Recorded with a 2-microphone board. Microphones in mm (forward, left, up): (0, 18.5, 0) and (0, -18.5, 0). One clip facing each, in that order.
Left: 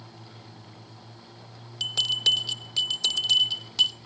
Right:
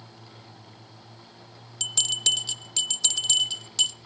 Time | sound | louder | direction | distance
1.8 | a bell | left 2 dB | 15° left (ahead or behind) | 0.5 m